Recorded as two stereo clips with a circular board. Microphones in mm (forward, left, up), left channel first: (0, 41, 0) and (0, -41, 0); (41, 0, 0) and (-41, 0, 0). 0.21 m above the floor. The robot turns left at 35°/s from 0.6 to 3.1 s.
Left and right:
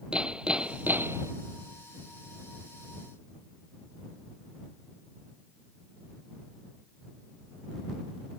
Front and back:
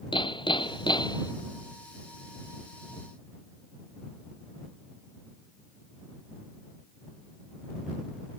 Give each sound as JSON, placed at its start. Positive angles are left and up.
{"t": 0.1, "sound": "hammering", "azimuth_deg": -10}